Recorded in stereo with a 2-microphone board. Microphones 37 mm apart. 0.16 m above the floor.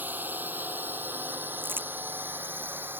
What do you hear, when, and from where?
0.0 s a drone: 55° right (ahead or behind); by 3.0 s 70° right (ahead or behind)
1.6 s crumpling: 70° right (ahead or behind)